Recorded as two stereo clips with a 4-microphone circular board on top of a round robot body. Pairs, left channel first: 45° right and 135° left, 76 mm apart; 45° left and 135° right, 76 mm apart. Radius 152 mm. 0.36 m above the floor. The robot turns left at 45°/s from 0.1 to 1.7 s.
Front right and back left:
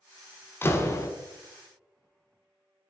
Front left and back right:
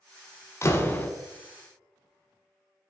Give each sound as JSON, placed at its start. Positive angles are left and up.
{"t": 0.6, "sound": "a door slam", "azimuth_deg": 5, "distance_m": 1.1}